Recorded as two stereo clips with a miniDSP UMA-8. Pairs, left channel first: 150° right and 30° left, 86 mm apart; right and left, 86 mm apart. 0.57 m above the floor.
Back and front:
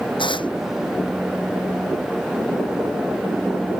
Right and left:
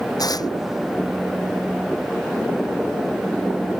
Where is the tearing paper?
130° right.